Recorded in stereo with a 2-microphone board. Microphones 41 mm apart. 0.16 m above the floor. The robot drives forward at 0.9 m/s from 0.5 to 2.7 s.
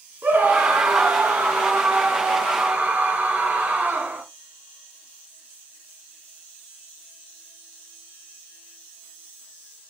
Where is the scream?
50° right (ahead or behind), 2.5 m; by 4.2 s 35° right (ahead or behind), 3.5 m.